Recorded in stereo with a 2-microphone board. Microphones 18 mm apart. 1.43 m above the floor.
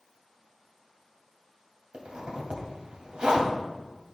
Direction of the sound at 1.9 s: 70° right (ahead or behind).